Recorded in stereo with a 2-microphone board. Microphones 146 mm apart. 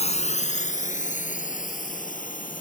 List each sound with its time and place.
0.0 s a drone: 50° left (ahead or behind); by 2.6 s 65° left (ahead or behind)